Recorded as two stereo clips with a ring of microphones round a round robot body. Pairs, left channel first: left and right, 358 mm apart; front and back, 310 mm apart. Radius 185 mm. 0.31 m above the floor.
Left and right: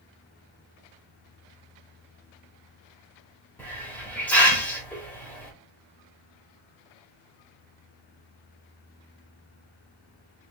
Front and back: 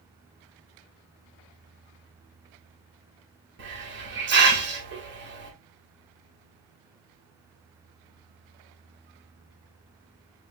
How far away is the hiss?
About 1.3 m.